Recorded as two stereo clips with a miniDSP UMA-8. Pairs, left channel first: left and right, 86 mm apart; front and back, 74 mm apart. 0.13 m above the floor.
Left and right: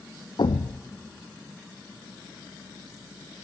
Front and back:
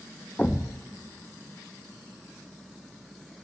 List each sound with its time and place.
0.4 s a thud: 70° left, 0.7 m